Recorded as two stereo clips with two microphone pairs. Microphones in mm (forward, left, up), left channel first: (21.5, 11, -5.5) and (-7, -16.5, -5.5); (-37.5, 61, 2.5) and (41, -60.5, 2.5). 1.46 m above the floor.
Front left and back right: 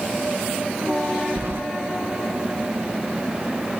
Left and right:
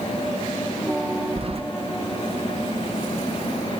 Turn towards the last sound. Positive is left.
turn(degrees=-100)